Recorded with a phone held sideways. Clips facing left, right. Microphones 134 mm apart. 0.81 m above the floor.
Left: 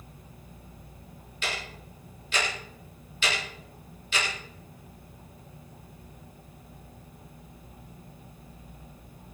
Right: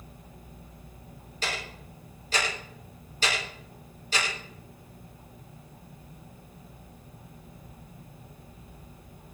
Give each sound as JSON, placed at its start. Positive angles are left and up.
{"t": 1.4, "sound": "ticking", "side_deg": -35, "distance_m": 8.5}